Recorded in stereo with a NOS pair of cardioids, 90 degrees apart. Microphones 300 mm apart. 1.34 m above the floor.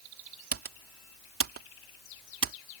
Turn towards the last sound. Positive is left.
turn(degrees=-45)